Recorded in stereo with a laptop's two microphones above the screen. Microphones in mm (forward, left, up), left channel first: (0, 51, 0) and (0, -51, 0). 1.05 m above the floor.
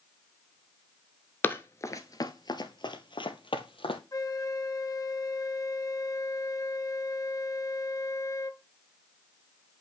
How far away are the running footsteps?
About 1.0 m.